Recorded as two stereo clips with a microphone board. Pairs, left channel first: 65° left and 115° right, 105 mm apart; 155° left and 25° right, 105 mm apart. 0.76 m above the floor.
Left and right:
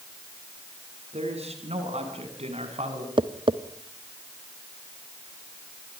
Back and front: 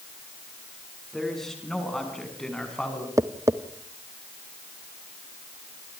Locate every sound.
1.1 s a man speaking: 115° right, 8 m; by 3.1 s 120° right, 7 m
3.2 s tapping: 80° right, 1.0 m